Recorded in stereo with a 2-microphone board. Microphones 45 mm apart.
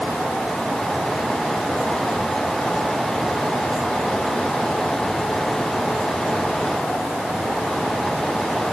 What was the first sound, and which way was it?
Only background noise.